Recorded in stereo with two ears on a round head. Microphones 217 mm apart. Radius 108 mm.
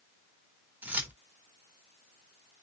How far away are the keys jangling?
About 1.1 m.